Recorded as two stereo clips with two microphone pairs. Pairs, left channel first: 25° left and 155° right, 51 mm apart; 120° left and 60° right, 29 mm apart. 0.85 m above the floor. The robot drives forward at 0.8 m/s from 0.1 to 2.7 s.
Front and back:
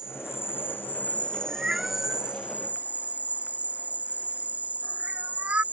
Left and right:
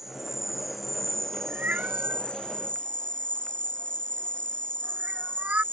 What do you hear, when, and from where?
0.0 s an insect: 20° left; by 5.7 s 155° left
1.5 s a cat meowing: 80° right; by 5.6 s 95° right